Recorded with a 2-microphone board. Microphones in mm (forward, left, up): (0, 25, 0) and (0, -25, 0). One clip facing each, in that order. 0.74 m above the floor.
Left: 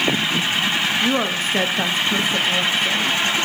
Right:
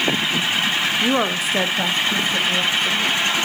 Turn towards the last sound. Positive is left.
turn(degrees=20)  # may be behind; listen again after turning